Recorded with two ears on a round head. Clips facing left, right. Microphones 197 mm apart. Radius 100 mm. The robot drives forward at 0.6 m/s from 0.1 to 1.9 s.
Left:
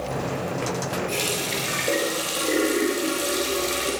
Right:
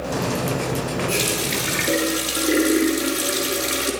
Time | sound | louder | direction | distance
1.1 | a running tap | right 4 dB | 10° right (ahead or behind) | 4.5 m